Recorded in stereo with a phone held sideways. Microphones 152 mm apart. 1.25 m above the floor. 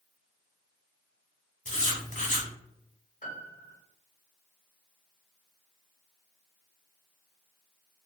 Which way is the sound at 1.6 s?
50° left (ahead or behind).